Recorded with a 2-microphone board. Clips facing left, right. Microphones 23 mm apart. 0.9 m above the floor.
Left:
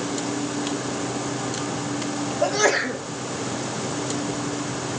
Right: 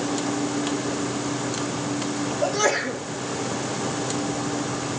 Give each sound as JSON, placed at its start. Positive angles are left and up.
{"t": 2.4, "sound": "a sneeze", "side_deg": 20, "distance_m": 2.5}